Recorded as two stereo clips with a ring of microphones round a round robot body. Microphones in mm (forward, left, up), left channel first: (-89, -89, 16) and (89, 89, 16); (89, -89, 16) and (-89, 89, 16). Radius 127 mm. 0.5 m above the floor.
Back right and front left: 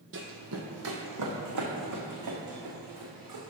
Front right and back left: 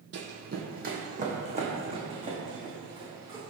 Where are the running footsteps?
90° left, 1.2 m; by 3.5 s 55° left, 3 m.